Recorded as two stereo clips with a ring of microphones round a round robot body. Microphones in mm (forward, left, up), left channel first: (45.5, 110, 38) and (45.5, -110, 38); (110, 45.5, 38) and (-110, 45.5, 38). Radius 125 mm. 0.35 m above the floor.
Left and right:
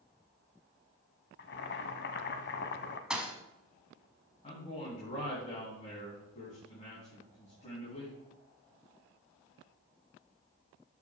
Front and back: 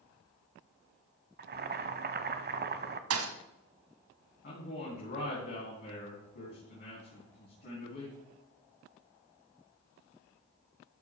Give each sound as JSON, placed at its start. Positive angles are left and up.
{"t": 1.4, "sound": "boiling", "azimuth_deg": 135, "distance_m": 0.7}
{"t": 3.1, "sound": "a thud", "azimuth_deg": -175, "distance_m": 1.1}
{"t": 4.4, "sound": "a man speaking", "azimuth_deg": 35, "distance_m": 3.5}